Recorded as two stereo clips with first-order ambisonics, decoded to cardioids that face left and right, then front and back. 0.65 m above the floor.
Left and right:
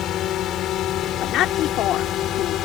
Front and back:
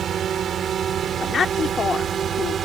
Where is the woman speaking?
60° left.